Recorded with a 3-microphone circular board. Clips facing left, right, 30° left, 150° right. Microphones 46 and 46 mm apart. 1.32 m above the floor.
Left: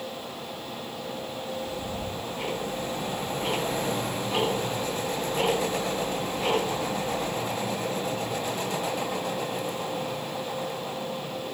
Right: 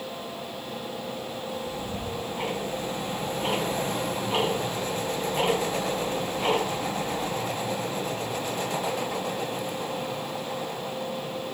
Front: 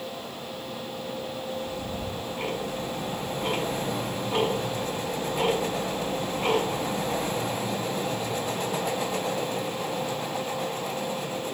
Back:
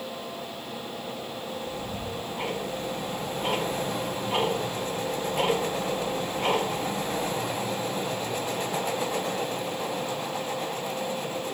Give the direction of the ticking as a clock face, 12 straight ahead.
4 o'clock.